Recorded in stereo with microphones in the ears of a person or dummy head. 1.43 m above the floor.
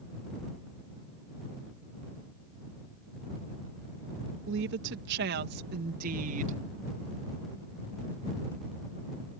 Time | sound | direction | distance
4.5 | a woman speaking | 75° right (ahead or behind) | ?